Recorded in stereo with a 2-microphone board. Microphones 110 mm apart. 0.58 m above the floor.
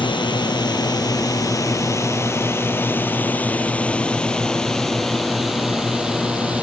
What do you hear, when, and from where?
0.0 s a drone: 45° left (ahead or behind); by 6.6 s 10° right (ahead or behind)